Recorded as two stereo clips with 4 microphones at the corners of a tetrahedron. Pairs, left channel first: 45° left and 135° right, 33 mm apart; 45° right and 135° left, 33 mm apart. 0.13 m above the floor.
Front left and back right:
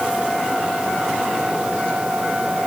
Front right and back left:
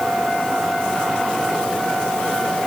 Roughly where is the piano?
I don't hear a piano.